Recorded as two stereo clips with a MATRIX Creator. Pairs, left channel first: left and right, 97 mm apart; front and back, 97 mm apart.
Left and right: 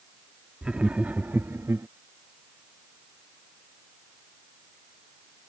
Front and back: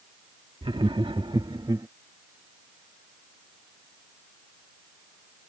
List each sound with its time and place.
0.6 s laughter: 170° right; by 1.9 s 140° right